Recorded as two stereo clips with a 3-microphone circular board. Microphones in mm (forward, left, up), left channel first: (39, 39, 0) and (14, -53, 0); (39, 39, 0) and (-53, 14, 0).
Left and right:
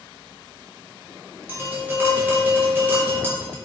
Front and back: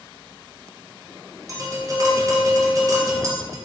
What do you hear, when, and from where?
1.5 s tapping: 160° right, 0.7 m